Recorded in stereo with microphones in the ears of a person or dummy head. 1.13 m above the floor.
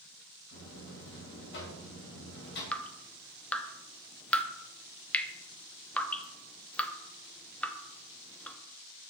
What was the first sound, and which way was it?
A buzzer, 60° left (ahead or behind).